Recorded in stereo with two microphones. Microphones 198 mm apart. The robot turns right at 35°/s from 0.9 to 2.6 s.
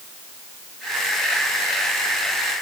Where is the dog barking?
I don't hear a dog barking.